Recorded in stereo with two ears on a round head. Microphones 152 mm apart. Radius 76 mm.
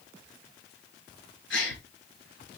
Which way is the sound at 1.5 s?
85° left.